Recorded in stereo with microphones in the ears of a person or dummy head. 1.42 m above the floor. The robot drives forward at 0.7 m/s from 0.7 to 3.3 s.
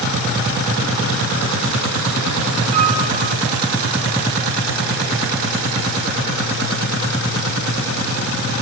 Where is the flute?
45° right (ahead or behind), 2.5 m.